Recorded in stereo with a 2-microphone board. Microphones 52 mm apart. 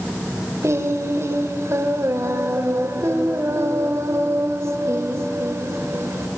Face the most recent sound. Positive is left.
turn(degrees=-65)  # may be behind; listen again after turning